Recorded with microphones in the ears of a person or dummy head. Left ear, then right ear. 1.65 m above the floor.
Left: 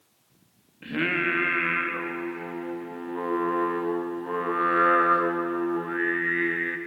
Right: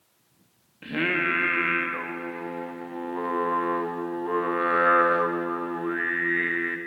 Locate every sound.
0.8 s singing: 10° right (ahead or behind), 1.4 m